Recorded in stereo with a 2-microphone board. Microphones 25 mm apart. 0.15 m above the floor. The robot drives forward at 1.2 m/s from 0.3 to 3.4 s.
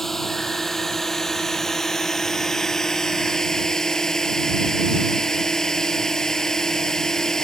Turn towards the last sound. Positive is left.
turn(degrees=25)  # may be behind; listen again after turning